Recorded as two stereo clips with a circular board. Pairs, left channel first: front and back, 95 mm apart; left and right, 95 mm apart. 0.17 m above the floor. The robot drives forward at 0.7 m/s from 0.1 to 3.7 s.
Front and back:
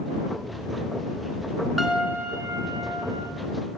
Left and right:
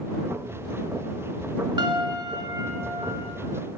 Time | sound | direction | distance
1.8 | a piano | 90° right | 0.7 m